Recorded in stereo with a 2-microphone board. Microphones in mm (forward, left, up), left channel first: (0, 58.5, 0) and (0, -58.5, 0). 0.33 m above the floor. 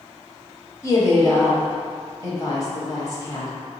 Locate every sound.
0.8 s a woman speaking: 30° left (ahead or behind), 1.4 m